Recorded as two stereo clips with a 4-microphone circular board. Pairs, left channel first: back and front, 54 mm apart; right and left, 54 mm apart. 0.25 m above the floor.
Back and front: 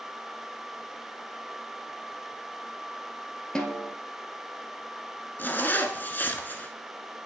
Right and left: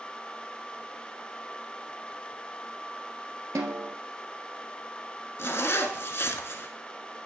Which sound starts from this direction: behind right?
A zipper, at 5.4 s.